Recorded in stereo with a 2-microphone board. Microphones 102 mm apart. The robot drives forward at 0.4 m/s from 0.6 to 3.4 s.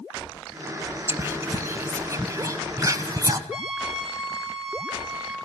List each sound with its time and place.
1.1 s whispering: 25° right (ahead or behind), 2 m; by 3.4 s 35° right (ahead or behind), 1.5 m
3.5 s a trumpet: 10° right (ahead or behind), 3 m